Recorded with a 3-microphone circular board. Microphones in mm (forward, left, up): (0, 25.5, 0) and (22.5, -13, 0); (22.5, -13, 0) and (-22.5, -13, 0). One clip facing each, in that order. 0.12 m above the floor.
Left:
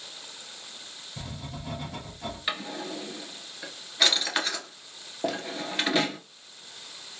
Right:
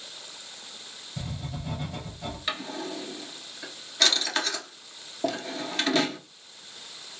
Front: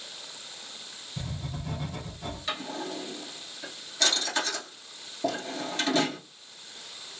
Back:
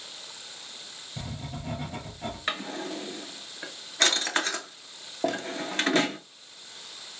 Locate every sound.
1.2 s writing: 160° right, 2.5 m
2.5 s a drawer: 160° right, 0.9 m